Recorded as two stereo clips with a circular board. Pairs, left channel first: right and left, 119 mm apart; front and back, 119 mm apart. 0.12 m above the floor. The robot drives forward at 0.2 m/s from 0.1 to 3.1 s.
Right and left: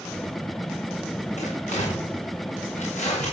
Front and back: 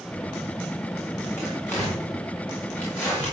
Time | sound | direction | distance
1.4 | tearing paper | 75° right | 7.5 m